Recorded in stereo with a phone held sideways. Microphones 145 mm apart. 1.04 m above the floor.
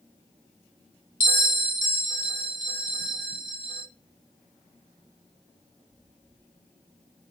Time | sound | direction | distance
1.2 | a bell | 75° left (ahead or behind) | 1.3 m